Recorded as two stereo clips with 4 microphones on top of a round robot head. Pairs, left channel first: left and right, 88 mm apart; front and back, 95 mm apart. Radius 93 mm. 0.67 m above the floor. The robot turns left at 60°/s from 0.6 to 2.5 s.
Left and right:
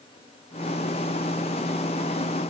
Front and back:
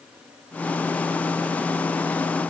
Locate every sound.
Only background noise.